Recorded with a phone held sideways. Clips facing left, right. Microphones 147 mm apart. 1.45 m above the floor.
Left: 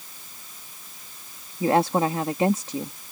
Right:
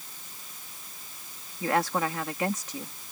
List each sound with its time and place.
1.6 s a woman speaking: 30° left (ahead or behind)